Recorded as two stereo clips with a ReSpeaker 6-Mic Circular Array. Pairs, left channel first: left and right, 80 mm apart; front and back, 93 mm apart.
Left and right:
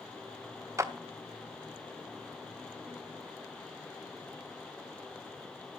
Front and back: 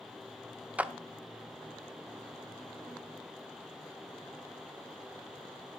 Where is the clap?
115° right, 0.8 m.